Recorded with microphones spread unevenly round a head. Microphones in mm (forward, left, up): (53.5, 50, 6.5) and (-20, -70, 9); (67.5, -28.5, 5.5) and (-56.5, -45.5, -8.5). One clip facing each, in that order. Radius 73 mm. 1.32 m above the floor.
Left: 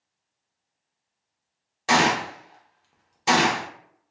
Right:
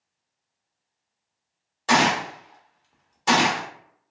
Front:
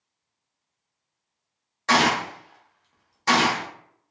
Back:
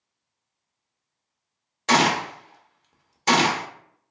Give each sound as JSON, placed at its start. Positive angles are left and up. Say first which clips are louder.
{"t": 1.9, "sound": "a gunshot", "louder": "even, back 1 dB", "azimuth_deg": 135, "distance_m": 0.6}